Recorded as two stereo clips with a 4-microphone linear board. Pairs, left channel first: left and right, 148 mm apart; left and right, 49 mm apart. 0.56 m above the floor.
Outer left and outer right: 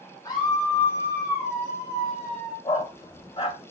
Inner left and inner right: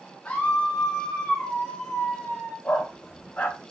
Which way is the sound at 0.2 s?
25° left (ahead or behind).